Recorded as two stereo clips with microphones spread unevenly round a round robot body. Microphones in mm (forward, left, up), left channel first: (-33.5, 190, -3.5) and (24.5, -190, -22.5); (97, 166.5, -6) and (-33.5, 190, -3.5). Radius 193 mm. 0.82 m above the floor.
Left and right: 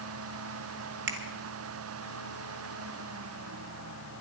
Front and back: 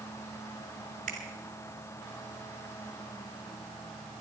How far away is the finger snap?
About 1.8 m.